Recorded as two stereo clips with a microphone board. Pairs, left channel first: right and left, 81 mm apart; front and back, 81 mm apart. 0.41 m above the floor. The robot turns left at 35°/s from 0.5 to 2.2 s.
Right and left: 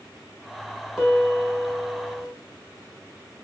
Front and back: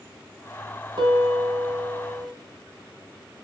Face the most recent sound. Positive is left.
turn(degrees=135)